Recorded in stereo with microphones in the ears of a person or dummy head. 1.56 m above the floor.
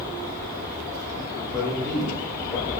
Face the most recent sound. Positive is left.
turn(degrees=15)  # may be behind; listen again after turning